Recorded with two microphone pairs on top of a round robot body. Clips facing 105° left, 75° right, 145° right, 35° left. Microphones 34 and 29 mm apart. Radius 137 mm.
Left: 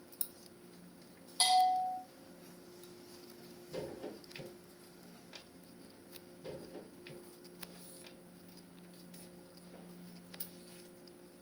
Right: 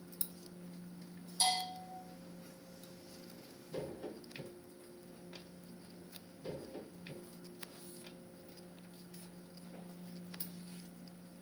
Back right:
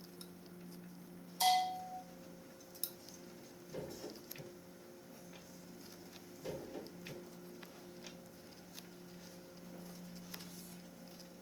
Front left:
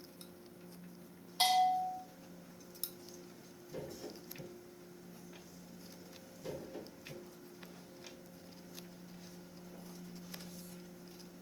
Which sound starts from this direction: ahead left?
A bell, at 1.4 s.